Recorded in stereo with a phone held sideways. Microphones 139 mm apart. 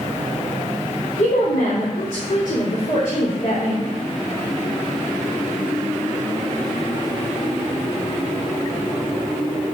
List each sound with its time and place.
1.2 s a woman speaking: 80° left, 2.0 m; by 3.8 s 70° left (ahead or behind), 3.5 m